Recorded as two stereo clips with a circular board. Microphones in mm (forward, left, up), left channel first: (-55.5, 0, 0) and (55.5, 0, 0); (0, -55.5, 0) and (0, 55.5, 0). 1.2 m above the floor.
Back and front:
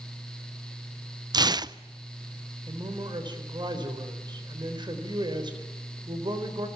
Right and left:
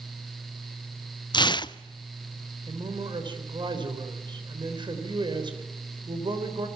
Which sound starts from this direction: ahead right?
Tearing paper, at 1.3 s.